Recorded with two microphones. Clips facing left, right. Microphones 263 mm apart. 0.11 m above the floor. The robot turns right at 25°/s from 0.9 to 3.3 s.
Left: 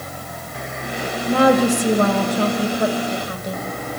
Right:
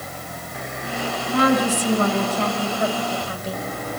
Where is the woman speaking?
105° left, 3 m; by 3.6 s 160° left, 3 m.